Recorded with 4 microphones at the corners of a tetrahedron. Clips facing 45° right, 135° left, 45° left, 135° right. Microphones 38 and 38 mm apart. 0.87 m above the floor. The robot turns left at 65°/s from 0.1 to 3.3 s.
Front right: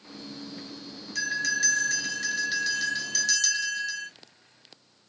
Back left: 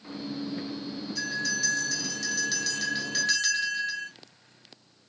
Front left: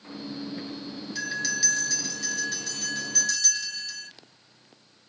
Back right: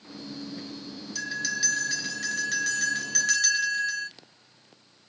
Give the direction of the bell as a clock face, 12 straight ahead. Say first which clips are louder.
Front right 4 dB, front left 1 dB; 1 o'clock.